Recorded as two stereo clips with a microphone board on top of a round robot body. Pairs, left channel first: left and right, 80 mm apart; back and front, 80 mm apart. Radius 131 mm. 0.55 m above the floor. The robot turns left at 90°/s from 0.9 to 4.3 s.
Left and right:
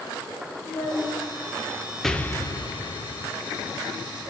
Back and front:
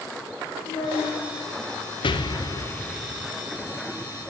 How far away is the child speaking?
About 1.9 m.